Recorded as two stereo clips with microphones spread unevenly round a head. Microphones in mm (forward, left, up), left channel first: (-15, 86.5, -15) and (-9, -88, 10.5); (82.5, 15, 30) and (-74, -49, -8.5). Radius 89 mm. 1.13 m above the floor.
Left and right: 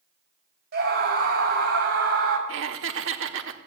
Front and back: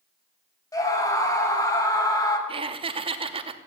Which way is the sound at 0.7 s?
50° right.